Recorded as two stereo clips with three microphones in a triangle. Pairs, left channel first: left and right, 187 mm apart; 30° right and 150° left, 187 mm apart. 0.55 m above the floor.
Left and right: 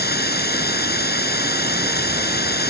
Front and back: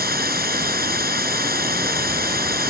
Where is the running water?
115° left.